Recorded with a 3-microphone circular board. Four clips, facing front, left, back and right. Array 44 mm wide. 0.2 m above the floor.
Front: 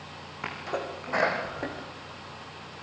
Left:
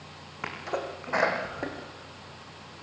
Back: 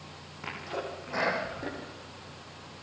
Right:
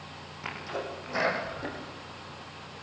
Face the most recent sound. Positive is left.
turn(degrees=60)